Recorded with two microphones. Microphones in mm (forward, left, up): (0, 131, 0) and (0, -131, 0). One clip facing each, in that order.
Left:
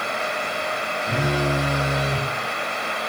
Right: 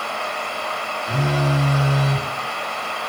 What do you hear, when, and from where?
1.1 s a phone buzzing: 20° left (ahead or behind), 0.9 m